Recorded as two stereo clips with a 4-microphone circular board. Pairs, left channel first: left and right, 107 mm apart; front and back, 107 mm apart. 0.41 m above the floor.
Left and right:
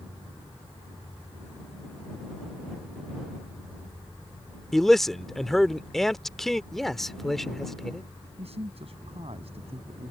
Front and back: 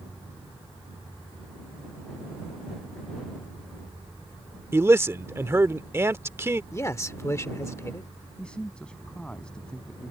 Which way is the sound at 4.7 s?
175° left.